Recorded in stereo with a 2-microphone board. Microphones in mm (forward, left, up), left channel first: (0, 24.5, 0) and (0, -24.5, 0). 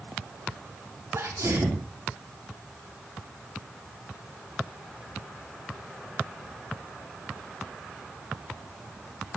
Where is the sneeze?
75° right (ahead or behind), 4.5 m.